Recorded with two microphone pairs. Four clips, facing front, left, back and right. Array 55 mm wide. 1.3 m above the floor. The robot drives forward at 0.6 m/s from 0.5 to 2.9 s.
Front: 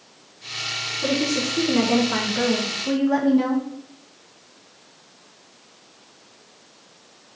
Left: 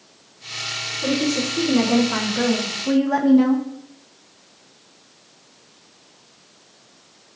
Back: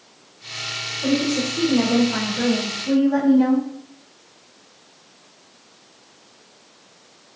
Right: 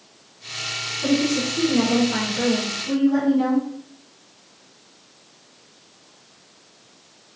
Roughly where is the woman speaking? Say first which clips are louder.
Right 1 dB, back 2 dB; ahead left.